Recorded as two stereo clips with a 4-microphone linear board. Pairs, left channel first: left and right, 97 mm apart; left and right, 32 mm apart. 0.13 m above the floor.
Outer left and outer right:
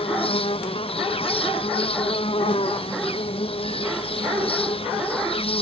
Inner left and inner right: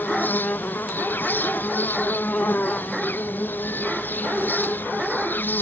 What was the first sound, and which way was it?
An insect, 75° left (ahead or behind).